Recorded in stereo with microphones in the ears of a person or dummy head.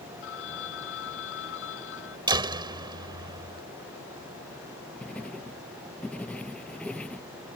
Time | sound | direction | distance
0.2 | a phone ringing | 70° left (ahead or behind) | ?
2.3 | a door slam | 20° right (ahead or behind) | ?
5.0 | writing | 5° left (ahead or behind) | ?